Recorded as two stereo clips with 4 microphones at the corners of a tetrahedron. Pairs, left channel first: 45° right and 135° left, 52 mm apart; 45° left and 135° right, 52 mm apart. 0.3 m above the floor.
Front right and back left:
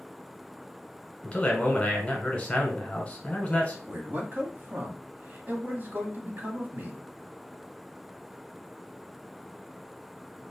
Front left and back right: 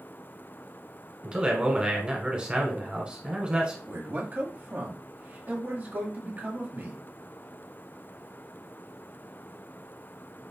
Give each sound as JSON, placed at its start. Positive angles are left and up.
{"t": 1.2, "sound": "a man speaking", "azimuth_deg": -85, "distance_m": 1.3}
{"t": 3.9, "sound": "a man speaking", "azimuth_deg": 180, "distance_m": 1.4}